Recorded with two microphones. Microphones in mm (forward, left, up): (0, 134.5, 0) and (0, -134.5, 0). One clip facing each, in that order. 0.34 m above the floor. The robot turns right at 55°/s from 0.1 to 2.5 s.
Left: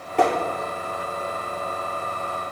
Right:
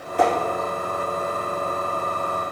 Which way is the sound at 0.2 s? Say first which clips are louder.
Even; 75° left (ahead or behind).